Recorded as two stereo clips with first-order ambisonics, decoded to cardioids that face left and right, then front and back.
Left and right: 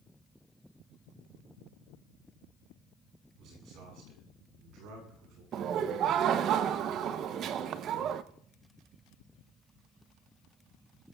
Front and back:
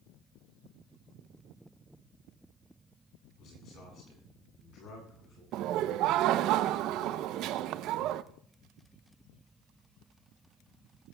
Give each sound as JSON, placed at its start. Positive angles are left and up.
{"t": 3.4, "sound": "a man speaking", "azimuth_deg": -50, "distance_m": 8.5}
{"t": 5.5, "sound": "laughter", "azimuth_deg": -140, "distance_m": 0.6}